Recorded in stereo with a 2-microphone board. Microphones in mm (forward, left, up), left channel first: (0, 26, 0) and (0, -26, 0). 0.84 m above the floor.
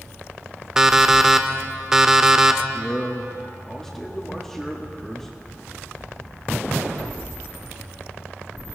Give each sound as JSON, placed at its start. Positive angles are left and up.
{"t": 0.8, "sound": "an alarm clock", "side_deg": -10, "distance_m": 0.7}
{"t": 2.7, "sound": "a man speaking", "side_deg": 10, "distance_m": 1.5}